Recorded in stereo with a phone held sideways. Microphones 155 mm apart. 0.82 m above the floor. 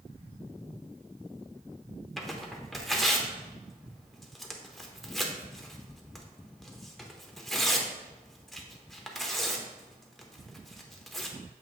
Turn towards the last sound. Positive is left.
turn(degrees=0)  # may be behind; listen again after turning